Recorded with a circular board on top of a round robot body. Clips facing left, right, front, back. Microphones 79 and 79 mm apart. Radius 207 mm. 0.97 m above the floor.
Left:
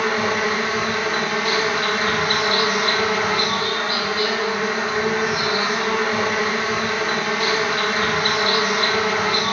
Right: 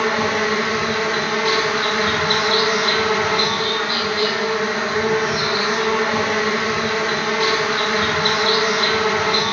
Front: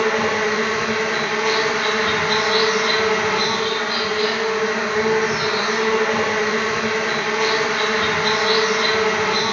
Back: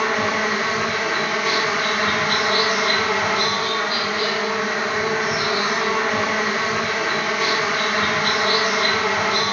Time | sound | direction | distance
0.0 | an insect | 95° right | 1.6 m